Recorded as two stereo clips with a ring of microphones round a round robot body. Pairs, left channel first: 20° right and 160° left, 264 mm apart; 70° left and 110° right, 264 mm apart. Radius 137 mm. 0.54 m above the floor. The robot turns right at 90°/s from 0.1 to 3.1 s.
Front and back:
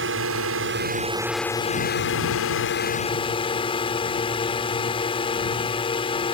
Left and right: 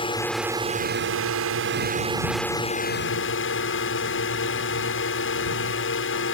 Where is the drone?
135° left; by 6.3 s 45° left.